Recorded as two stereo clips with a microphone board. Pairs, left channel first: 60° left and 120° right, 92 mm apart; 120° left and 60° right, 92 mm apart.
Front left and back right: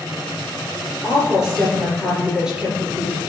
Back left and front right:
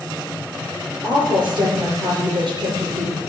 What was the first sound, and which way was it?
A woman speaking, 35° right.